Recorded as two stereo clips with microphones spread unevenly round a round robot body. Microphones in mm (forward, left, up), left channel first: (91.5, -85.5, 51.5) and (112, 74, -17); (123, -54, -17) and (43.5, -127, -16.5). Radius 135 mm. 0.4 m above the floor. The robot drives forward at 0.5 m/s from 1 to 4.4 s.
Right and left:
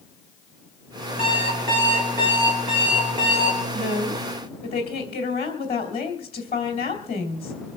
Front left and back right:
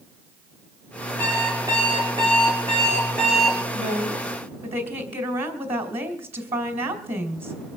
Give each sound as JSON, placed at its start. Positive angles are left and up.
{"t": 1.2, "sound": "an alarm clock", "azimuth_deg": 140, "distance_m": 2.5}
{"t": 3.7, "sound": "a woman speaking", "azimuth_deg": -170, "distance_m": 2.0}